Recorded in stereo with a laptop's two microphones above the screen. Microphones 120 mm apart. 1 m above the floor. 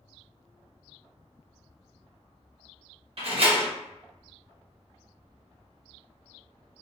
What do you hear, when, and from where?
3.2 s a door slam: 55° right (ahead or behind), 0.7 m